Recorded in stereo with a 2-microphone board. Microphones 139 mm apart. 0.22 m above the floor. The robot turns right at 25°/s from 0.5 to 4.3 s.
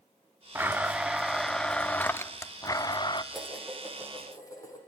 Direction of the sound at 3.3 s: Centre (ahead or behind).